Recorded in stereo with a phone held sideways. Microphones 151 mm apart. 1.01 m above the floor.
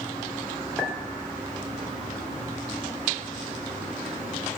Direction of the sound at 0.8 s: 10° right (ahead or behind).